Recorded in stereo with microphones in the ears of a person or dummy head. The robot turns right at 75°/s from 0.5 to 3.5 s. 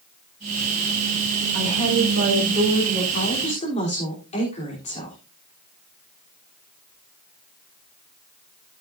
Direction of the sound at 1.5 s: 120° right.